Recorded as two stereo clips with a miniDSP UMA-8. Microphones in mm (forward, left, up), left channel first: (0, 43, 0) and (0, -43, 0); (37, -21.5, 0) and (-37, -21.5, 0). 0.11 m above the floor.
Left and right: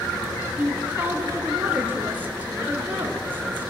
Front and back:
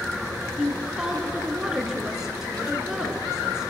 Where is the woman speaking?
110° right, 1.2 m.